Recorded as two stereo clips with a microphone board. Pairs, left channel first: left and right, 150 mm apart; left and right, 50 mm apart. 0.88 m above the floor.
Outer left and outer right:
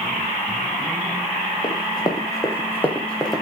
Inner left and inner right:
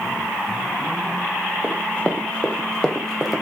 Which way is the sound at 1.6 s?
30° left (ahead or behind).